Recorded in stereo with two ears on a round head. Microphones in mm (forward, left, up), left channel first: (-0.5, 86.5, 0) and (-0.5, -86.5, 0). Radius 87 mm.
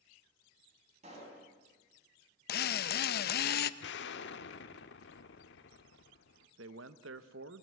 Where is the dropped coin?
No dropped coin in this recording.